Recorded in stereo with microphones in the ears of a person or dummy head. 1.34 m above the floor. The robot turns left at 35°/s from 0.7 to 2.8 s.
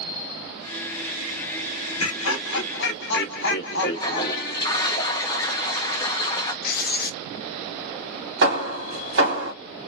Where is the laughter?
80° left, 0.9 m; by 4.8 s 65° left (ahead or behind), 0.9 m.